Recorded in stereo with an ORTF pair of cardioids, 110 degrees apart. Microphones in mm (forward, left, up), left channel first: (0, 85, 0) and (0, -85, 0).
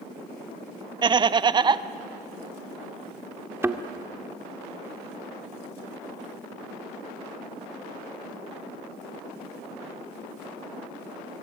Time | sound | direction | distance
1.0 | laughter | 25° right | 0.8 m
3.6 | a thud | 15° right | 1.7 m